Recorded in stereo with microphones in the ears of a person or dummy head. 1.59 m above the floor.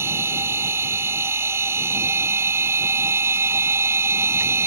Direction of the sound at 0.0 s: 15° right (ahead or behind).